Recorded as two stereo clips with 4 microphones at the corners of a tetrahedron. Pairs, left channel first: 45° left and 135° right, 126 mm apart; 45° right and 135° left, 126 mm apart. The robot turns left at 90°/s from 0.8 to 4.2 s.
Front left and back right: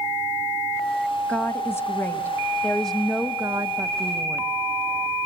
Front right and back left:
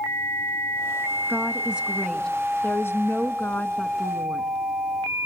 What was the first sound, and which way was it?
A woman speaking, 110° left.